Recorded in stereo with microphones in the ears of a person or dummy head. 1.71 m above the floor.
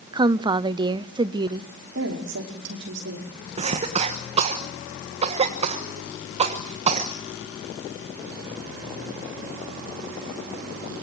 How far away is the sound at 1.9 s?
About 5 m.